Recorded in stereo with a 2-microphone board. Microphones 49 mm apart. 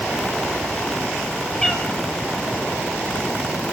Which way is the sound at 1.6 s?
15° left (ahead or behind).